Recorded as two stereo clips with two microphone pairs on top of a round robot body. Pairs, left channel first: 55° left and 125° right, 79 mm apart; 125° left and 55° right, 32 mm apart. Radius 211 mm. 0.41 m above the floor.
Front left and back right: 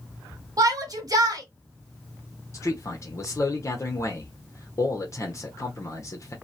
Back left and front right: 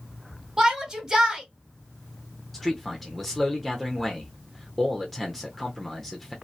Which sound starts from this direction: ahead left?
A man speaking, at 2.5 s.